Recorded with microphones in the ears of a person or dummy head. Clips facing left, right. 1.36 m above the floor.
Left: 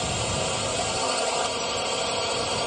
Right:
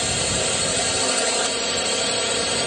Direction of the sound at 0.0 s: 25° right (ahead or behind).